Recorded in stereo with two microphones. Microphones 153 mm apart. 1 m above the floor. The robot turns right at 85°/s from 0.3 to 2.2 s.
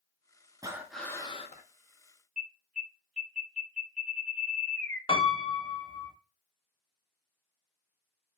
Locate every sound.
0.6 s breathing: 25° right, 0.5 m; by 1.6 s 60° left, 0.5 m
2.4 s an alarm: 60° right (ahead or behind), 2.5 m
5.1 s a piano: 35° left (ahead or behind), 0.9 m